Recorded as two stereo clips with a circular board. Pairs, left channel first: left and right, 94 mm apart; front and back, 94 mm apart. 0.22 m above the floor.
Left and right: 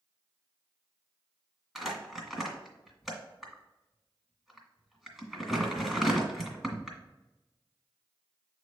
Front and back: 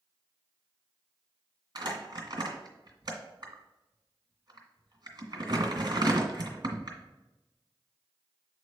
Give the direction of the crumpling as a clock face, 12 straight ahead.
6 o'clock.